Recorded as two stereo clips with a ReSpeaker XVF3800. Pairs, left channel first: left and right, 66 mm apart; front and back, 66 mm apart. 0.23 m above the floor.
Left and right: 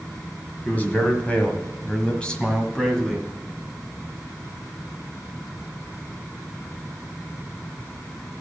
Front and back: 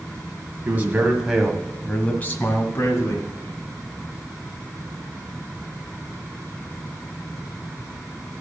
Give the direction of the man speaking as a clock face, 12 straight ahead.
7 o'clock.